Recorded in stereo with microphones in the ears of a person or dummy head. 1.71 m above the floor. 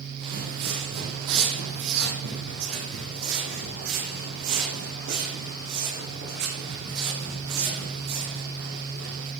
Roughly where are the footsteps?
Right.